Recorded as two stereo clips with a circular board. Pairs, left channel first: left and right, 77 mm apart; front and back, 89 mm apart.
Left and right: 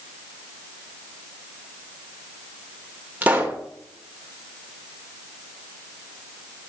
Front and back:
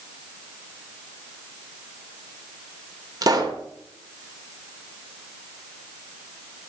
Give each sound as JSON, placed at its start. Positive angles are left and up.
{"t": 3.2, "sound": "a pop", "azimuth_deg": -155, "distance_m": 1.2}